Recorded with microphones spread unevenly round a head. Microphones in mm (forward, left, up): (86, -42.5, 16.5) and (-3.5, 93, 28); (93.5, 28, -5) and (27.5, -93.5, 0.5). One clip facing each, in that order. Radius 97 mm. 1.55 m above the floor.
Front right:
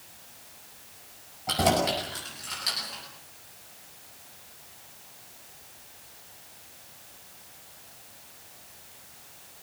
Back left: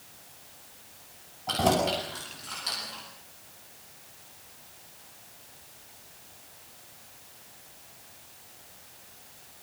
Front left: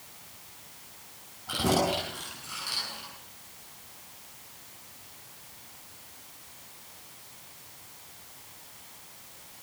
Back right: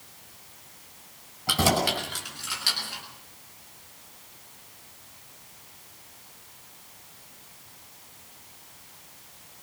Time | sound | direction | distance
1.5 | keys jangling | 140° right | 9.5 m